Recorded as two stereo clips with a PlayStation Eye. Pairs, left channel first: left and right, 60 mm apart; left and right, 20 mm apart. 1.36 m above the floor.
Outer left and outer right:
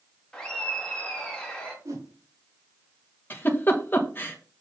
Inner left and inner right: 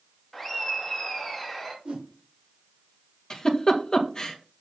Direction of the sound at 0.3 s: 15° left (ahead or behind).